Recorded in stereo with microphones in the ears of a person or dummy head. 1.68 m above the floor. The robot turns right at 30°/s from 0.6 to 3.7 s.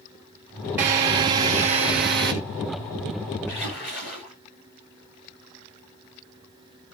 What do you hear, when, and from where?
0.8 s a drill: 170° right, 1.5 m; by 2.3 s 125° right, 1.5 m
3.5 s a splash: 15° left (ahead or behind), 8 m; by 4.3 s 5° left (ahead or behind), 8 m